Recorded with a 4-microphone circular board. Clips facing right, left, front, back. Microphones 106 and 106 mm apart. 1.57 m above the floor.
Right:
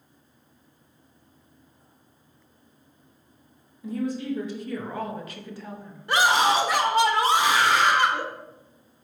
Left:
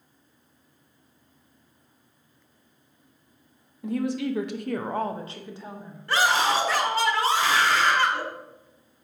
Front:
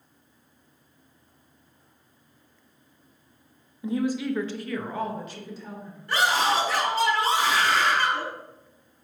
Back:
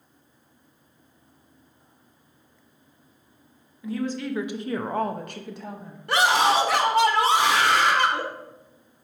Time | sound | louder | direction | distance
3.8 | a woman speaking | left 2 dB, front 2 dB | 65° left | 0.8 m
6.1 | a scream | right 2 dB, back 3 dB | 165° right | 1.4 m